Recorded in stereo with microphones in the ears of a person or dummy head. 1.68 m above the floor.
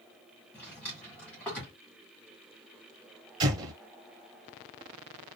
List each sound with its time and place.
0.5 s a drawer: 5° left (ahead or behind), 1.1 m
3.4 s an explosion: 30° right (ahead or behind), 1.2 m